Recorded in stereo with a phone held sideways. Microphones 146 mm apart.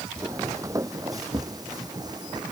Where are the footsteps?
20° right (ahead or behind); by 2.5 s 30° right (ahead or behind).